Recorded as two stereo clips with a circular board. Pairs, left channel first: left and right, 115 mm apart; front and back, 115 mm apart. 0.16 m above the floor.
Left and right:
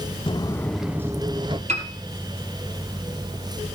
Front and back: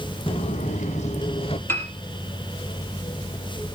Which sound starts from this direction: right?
A piano, at 1.7 s.